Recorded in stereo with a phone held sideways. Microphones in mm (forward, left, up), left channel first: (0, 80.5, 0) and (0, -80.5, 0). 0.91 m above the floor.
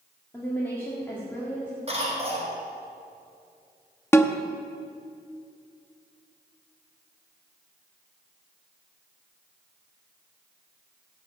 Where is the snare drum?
15° left (ahead or behind), 0.6 m.